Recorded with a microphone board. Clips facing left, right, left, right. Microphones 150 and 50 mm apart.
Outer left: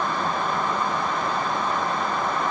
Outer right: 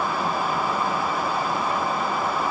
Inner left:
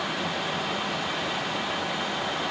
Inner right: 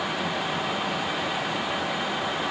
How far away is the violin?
No violin in this recording.